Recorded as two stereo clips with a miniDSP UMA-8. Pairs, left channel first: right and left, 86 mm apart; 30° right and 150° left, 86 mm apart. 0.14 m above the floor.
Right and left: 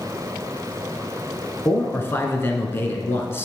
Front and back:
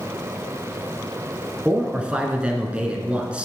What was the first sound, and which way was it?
A man speaking, 140° right.